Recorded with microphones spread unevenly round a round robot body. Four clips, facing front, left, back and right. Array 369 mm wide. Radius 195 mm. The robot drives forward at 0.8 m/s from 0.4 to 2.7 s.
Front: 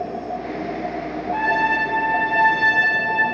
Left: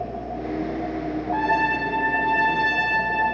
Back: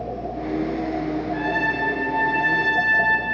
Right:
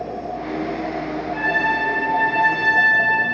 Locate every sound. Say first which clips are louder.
1.3 s a trumpet: even, front 9 dB; 40° left, 0.8 m; by 3.2 s 165° left, 1.1 m